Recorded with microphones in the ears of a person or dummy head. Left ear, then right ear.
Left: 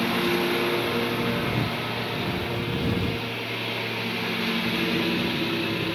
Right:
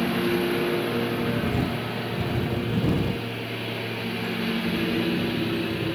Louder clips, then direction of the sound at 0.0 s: Left 1 dB; 25° left (ahead or behind).